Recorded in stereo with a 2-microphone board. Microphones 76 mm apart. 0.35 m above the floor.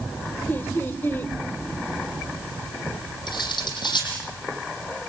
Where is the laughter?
30° left (ahead or behind), 1.3 m.